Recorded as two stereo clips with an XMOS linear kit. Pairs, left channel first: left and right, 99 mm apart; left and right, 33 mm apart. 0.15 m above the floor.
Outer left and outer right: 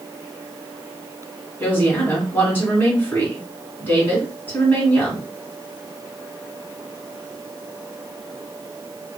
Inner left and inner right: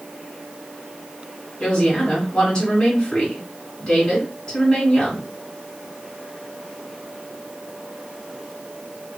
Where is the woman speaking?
20° left (ahead or behind), 1.5 m.